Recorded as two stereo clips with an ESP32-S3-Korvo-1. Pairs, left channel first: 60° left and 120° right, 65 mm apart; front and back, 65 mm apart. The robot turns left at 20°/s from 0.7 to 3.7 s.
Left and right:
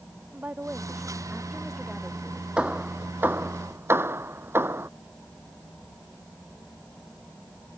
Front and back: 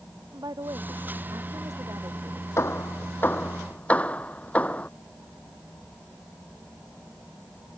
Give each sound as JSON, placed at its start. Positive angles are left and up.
{"t": 0.3, "sound": "a woman speaking", "azimuth_deg": 180}
{"t": 2.6, "sound": "hammering", "azimuth_deg": -45}